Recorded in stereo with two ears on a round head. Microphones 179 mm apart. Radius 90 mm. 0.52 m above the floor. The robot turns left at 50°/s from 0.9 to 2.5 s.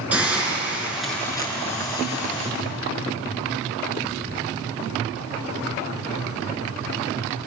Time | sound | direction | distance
0.1 | a hiss | 175° right | 5 m